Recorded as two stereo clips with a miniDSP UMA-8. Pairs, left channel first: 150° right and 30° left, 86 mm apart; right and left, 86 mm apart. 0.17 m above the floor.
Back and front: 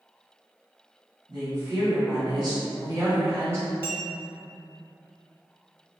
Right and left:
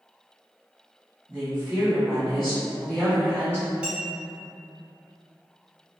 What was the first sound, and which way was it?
A woman speaking, 25° left.